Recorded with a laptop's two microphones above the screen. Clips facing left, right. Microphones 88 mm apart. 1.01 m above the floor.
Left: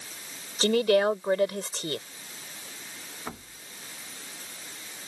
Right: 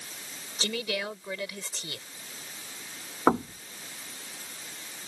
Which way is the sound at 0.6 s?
45° left (ahead or behind).